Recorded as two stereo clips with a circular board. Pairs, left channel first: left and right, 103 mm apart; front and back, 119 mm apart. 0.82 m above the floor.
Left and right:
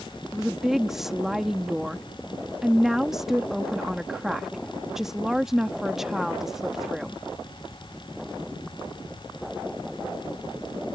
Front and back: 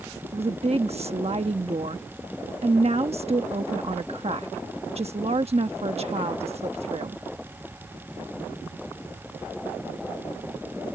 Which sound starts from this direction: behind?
A woman speaking, at 0.3 s.